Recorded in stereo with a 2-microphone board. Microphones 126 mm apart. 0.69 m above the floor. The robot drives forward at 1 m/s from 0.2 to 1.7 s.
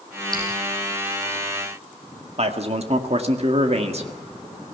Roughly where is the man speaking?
Right.